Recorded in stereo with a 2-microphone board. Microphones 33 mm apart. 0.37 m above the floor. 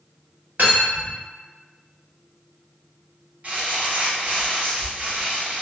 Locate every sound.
0.6 s cutlery clinking: 65° right (ahead or behind), 1.3 m
3.4 s crumpling: 50° right (ahead or behind), 1.4 m